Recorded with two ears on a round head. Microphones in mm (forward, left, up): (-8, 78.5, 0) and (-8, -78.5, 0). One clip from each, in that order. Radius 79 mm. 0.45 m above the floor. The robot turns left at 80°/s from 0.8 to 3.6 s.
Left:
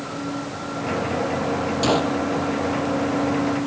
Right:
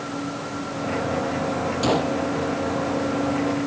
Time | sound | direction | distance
1.8 | a gunshot | 20° left (ahead or behind) | ?